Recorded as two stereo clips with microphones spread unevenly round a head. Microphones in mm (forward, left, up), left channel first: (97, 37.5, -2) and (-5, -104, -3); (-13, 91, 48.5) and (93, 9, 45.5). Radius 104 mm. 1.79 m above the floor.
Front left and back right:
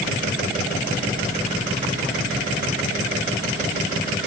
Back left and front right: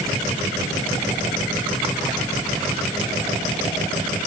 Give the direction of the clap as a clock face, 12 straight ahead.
I don't hear a clap.